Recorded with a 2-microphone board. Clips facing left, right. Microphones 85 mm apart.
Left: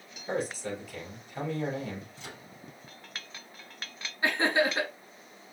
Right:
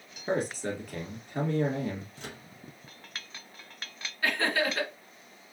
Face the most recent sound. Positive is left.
turn(degrees=20)  # may be behind; listen again after turning